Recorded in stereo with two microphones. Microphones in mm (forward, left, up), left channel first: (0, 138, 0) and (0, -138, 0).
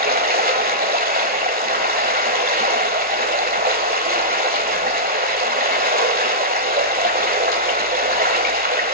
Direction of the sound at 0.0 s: 35° right (ahead or behind).